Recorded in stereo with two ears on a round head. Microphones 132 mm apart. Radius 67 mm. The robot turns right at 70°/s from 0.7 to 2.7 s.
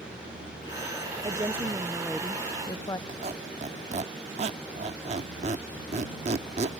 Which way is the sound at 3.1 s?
45° right (ahead or behind).